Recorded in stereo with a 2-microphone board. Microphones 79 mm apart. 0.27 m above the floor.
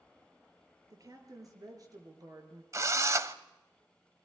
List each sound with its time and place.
0.9 s a woman speaking: 50° right (ahead or behind), 4.5 m
2.7 s a drill: 40° right (ahead or behind), 0.9 m